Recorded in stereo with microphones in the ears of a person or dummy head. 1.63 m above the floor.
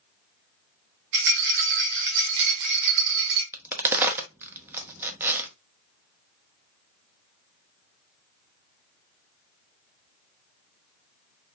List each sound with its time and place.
1.1 s a rattle: 70° right (ahead or behind), 1.0 m
3.5 s a crack: 10° right (ahead or behind), 0.6 m